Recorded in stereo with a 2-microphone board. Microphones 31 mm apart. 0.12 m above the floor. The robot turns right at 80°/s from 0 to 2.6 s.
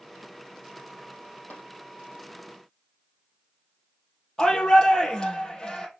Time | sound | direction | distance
1.5 | tapping | 70° left (ahead or behind) | 3.5 m
4.4 | a shout | 25° left (ahead or behind) | 3.5 m